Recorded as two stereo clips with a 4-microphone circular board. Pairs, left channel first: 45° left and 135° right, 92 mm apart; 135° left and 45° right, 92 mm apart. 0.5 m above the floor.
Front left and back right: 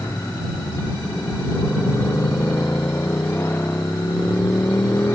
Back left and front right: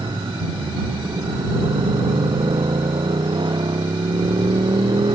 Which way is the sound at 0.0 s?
20° right.